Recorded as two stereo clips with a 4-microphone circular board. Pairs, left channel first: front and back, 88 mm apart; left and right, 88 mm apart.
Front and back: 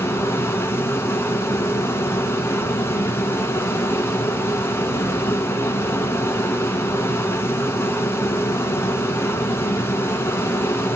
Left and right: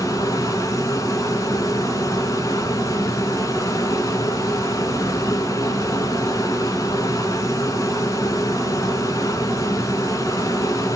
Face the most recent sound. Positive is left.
turn(degrees=55)